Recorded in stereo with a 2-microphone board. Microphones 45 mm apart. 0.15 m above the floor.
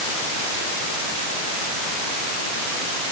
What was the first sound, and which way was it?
Only background noise.